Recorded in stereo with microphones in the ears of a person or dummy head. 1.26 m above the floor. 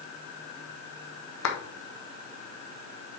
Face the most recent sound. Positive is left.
turn(degrees=75)  # may be behind; listen again after turning